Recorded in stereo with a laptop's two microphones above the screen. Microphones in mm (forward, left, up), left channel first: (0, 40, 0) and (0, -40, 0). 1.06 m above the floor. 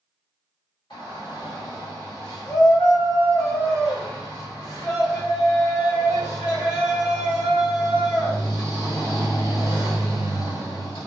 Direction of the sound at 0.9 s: 80° left.